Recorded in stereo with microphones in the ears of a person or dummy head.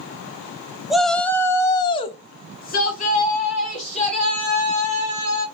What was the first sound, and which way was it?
A shout, 5° right (ahead or behind).